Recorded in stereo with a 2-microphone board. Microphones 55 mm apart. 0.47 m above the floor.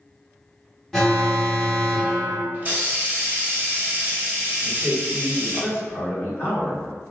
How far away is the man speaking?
About 2.0 m.